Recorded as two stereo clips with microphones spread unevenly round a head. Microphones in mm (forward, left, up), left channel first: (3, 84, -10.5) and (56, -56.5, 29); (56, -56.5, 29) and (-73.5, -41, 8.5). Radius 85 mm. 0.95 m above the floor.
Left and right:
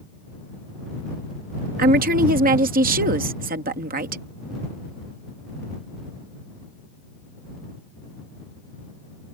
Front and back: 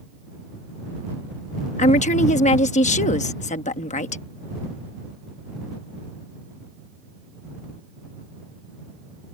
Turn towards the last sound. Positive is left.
turn(degrees=-35)